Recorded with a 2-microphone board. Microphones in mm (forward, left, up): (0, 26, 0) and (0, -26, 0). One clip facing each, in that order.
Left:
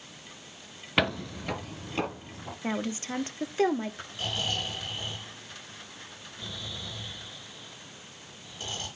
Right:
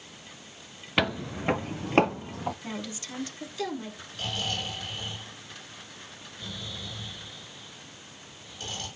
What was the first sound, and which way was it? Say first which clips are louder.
Footsteps: even; 5° left (ahead or behind).